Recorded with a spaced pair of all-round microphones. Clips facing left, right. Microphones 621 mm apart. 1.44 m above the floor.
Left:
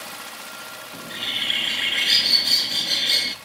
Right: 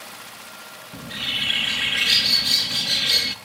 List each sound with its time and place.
0.9 s a bird: 35° right (ahead or behind), 1.2 m